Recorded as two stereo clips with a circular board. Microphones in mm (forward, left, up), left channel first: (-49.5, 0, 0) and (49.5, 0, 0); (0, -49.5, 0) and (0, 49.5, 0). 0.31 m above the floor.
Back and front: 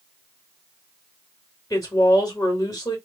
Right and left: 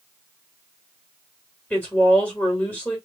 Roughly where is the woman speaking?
Behind right.